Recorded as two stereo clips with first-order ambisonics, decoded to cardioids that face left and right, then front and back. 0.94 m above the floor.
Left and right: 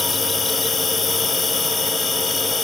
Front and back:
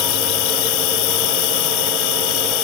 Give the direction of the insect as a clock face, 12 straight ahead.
12 o'clock.